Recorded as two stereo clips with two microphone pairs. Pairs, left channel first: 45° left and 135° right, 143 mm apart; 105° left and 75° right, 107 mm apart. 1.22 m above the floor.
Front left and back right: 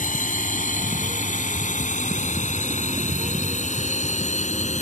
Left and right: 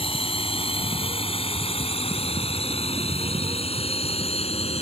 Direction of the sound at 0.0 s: 70° left.